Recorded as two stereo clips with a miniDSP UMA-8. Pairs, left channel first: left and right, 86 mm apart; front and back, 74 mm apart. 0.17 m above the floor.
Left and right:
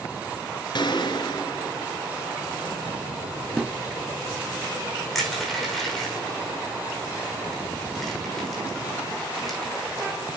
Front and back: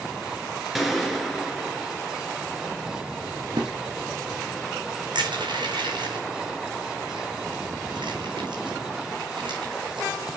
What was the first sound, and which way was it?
A gunshot, 90° left.